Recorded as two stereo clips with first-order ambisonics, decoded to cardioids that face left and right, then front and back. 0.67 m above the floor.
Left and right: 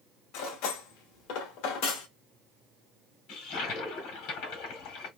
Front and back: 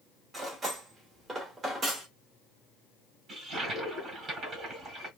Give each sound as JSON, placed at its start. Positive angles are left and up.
{"t": 0.3, "sound": "cutlery clinking", "azimuth_deg": 110, "distance_m": 1.4}
{"t": 3.3, "sound": "a toilet flushing", "azimuth_deg": 120, "distance_m": 1.8}